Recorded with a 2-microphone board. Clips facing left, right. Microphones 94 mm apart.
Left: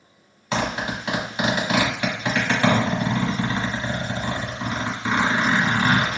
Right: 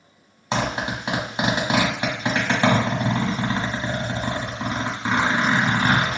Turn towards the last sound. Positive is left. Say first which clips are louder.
# even
turn(degrees=-25)  # may be behind; listen again after turning